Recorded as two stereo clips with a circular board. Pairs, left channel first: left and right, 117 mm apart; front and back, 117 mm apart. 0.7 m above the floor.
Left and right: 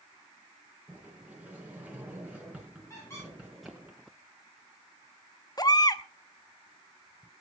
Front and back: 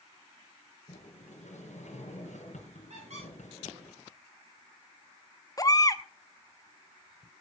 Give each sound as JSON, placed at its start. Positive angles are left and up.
{"t": 0.9, "sound": "a sliding door", "azimuth_deg": -10, "distance_m": 4.0}
{"t": 2.9, "sound": "a squeak", "azimuth_deg": 155, "distance_m": 9.5}
{"t": 5.6, "sound": "a baby crying", "azimuth_deg": 45, "distance_m": 0.8}